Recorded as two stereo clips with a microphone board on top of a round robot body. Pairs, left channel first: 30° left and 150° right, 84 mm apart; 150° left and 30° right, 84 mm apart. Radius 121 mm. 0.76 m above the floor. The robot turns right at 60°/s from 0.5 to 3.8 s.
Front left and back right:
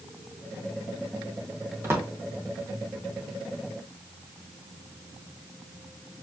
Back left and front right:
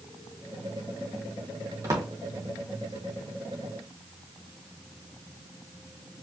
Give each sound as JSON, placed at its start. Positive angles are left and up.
{"t": 1.8, "sound": "a drawer", "azimuth_deg": -90, "distance_m": 0.9}